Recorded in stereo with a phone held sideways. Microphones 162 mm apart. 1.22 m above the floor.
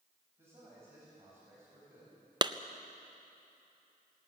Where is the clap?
30° right (ahead or behind), 0.5 m.